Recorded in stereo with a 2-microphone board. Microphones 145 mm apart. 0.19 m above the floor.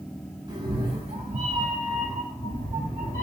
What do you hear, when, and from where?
0.5 s a cat meowing: 30° right (ahead or behind), 1.1 m; by 3.2 s 65° right (ahead or behind), 1.7 m